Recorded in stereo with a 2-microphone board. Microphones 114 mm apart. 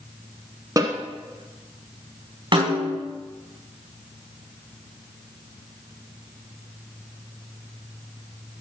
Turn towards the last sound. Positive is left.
turn(degrees=-45)  # may be behind; listen again after turning